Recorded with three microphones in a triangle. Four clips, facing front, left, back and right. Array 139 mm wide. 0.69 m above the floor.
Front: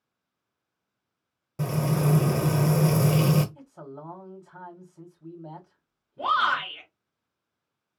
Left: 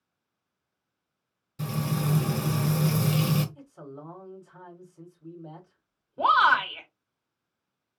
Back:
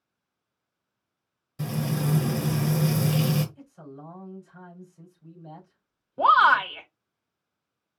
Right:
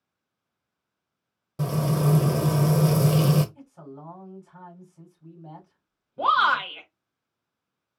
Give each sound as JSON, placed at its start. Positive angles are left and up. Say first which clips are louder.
{"t": 1.6, "sound": "frying", "louder": "right 5 dB, front 3 dB", "azimuth_deg": -55, "distance_m": 1.0}
{"t": 3.5, "sound": "a man speaking", "louder": "even, front 2 dB", "azimuth_deg": -5, "distance_m": 3.0}
{"t": 6.2, "sound": "a shout", "louder": "left 1 dB, back 7 dB", "azimuth_deg": 175, "distance_m": 1.5}